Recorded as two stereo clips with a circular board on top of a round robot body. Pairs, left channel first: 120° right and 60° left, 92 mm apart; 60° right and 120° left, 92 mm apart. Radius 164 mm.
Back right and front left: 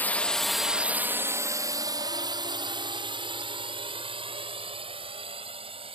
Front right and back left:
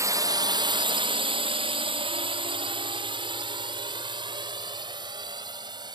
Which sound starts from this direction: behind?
A drone, at 0.0 s.